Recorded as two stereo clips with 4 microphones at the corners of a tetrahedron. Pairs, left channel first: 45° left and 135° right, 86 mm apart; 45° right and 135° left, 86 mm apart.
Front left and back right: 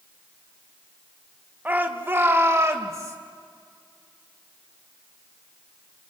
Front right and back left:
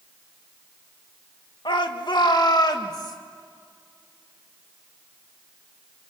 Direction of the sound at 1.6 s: 65° right.